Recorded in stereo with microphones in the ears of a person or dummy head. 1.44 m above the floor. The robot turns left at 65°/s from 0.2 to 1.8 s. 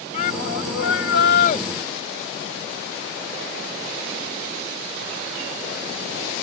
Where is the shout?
135° left; by 1.6 s 45° left.